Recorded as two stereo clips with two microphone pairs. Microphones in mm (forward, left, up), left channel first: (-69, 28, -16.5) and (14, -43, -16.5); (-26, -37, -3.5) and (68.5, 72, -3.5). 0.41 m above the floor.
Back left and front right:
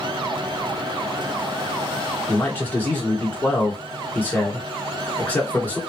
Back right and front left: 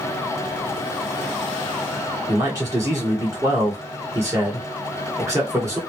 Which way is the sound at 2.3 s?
85° left.